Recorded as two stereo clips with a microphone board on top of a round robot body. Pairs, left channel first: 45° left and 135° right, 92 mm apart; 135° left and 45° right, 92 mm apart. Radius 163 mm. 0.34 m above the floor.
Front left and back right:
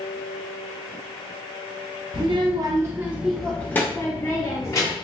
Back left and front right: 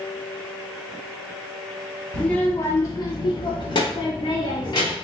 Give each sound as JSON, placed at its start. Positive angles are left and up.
{"t": 2.1, "sound": "a child speaking", "azimuth_deg": -145, "distance_m": 0.7}